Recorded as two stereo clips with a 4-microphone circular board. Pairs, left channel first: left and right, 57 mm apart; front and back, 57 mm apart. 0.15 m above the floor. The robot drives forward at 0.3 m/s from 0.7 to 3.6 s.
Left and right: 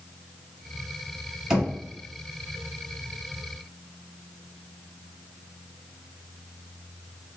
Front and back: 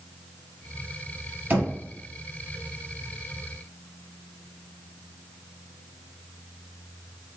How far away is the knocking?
About 1.6 m.